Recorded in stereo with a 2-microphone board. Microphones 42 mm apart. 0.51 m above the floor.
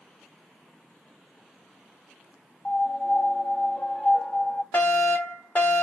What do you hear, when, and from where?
2.6 s a piano: 30° left (ahead or behind), 0.9 m
4.7 s a fire alarm: 40° left (ahead or behind), 2 m